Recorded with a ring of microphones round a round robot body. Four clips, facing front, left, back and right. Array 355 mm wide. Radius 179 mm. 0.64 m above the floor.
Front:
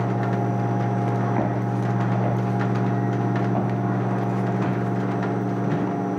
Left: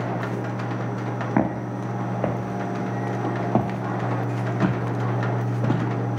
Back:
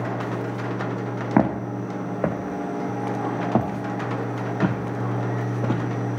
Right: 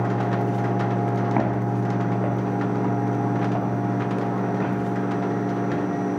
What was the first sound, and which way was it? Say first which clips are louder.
Footsteps: right 1 dB, back 3 dB; 165° left.